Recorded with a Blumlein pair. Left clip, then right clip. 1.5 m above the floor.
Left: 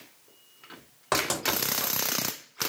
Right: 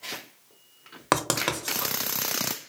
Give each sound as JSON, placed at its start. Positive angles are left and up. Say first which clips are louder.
{"t": 1.1, "sound": "writing", "louder": "right 2 dB", "azimuth_deg": -30, "distance_m": 0.9}